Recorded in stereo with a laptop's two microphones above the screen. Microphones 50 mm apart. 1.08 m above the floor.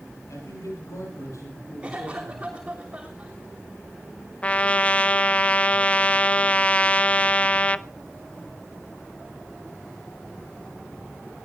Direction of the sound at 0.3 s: 85° left.